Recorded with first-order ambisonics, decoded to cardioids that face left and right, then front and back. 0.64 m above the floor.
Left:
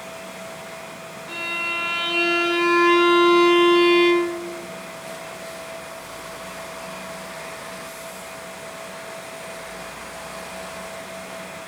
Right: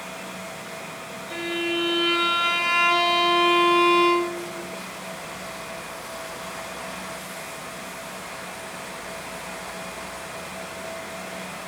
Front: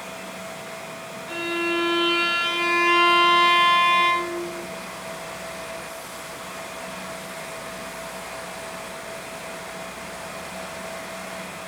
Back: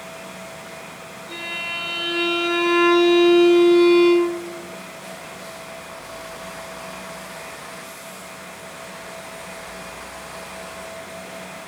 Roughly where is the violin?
Ahead left.